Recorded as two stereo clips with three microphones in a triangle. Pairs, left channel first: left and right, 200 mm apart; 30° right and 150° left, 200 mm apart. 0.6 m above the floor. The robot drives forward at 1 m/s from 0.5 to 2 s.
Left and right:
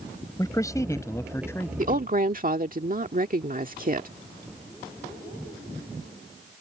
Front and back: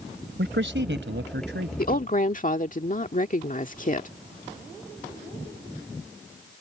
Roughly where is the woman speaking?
Ahead right.